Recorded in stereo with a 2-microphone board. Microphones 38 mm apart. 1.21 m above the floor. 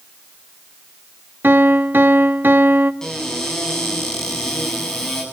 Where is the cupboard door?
15° left (ahead or behind), 8.5 m.